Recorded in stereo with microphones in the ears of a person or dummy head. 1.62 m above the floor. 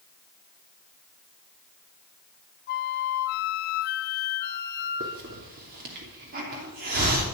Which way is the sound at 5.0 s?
45° right (ahead or behind).